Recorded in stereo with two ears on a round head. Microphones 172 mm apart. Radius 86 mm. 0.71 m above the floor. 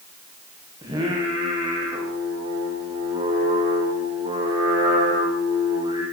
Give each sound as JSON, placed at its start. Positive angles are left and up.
{"t": 0.8, "sound": "singing", "side_deg": -20, "distance_m": 7.5}